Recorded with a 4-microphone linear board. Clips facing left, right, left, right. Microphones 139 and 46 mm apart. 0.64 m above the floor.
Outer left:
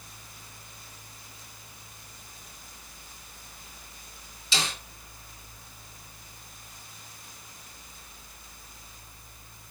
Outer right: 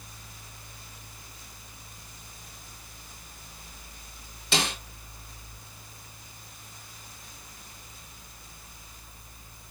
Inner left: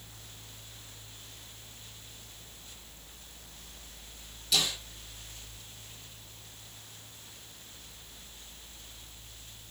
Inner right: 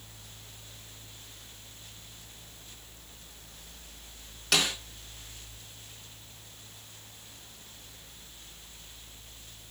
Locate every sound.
4.5 s a snare drum: 60° right (ahead or behind), 4 m